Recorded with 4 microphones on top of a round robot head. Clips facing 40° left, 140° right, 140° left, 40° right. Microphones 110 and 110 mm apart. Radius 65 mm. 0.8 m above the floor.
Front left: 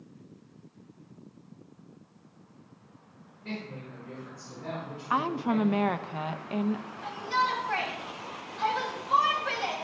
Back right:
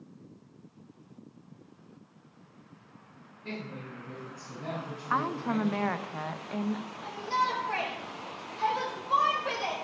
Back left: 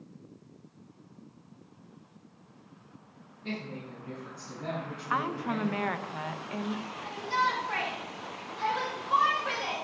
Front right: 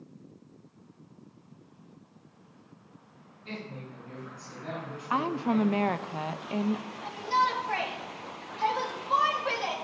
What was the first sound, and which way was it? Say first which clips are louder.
A woman speaking: front left 1 dB, back left 3 dB; 160° left.